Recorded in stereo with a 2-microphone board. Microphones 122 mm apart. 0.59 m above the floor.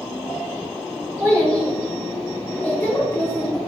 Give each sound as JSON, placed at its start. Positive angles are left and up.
{"t": 1.2, "sound": "a child speaking", "side_deg": -20, "distance_m": 3.0}